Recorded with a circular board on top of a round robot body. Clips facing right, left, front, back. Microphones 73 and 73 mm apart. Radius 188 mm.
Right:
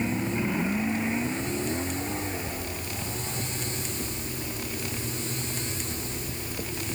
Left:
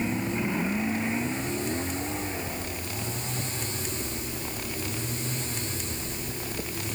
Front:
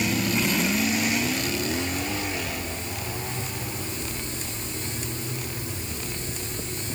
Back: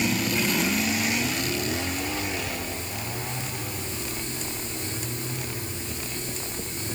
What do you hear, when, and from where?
Only background noise.